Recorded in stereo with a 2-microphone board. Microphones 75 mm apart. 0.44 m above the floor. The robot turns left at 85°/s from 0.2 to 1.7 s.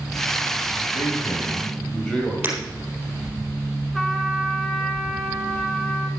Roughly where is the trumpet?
Centre.